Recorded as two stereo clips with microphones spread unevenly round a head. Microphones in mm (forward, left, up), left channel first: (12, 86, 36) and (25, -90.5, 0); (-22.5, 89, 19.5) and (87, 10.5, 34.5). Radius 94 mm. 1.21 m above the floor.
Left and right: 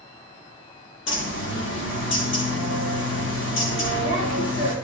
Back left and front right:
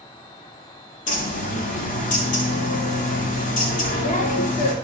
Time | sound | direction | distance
1.1 | a bird | 115° left | 1.8 m